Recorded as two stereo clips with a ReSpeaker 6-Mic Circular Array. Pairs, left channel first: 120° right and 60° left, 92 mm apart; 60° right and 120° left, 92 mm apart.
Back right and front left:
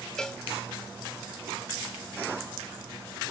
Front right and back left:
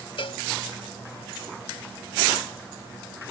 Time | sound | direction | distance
0.2 | a cowbell | 40° right | ?